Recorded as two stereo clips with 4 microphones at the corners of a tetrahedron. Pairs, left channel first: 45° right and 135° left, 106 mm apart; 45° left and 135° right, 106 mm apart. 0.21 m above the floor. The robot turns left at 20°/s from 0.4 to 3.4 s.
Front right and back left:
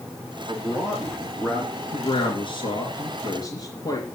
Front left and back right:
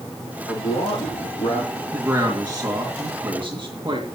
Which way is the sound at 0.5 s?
60° left.